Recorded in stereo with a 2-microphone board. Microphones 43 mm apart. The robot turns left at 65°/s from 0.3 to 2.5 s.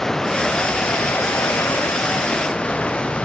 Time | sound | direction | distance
0.0 | running water | 170° left | ?